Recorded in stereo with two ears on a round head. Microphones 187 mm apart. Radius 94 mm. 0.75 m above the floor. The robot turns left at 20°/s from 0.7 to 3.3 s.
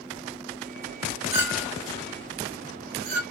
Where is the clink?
10° right (ahead or behind), 1.4 m; by 3.2 s 50° right (ahead or behind), 1.4 m.